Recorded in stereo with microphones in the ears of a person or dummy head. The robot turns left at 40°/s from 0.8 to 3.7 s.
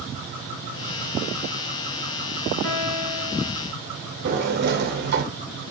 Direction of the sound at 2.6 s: 130° left.